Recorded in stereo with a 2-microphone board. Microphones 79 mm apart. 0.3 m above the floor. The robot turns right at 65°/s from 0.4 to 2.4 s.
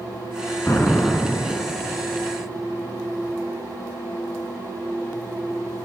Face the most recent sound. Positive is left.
turn(degrees=-105)